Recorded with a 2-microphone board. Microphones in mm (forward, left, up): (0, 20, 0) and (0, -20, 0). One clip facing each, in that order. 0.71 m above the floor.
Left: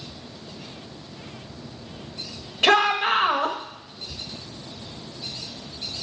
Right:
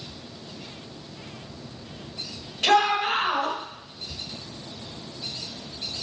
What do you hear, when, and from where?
2.6 s a shout: 40° left (ahead or behind), 1.3 m